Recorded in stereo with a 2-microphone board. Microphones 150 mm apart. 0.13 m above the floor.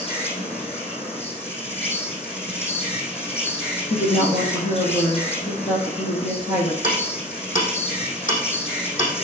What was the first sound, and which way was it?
An insect, 45° left (ahead or behind).